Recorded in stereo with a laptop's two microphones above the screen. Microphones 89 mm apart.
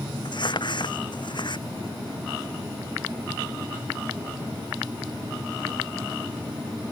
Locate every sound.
0.2 s crumpling: 55° left (ahead or behind)